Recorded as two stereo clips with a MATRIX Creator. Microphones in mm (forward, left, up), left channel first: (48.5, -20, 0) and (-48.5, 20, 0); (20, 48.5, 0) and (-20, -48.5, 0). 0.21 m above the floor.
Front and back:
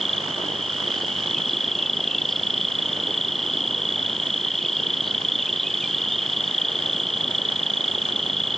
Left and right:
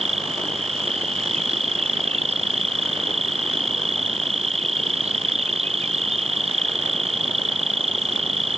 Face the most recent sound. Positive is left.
turn(degrees=-110)